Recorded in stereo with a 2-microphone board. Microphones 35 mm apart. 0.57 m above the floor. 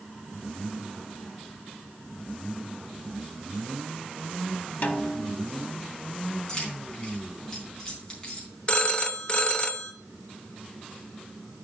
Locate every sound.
4.8 s a snare drum: 55° left (ahead or behind), 1.2 m
6.5 s keys jangling: 25° left (ahead or behind), 3.5 m
8.7 s a phone ringing: 30° left (ahead or behind), 0.8 m